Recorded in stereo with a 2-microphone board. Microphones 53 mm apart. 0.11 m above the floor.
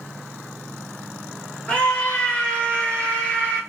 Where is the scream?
20° left (ahead or behind), 1.4 m.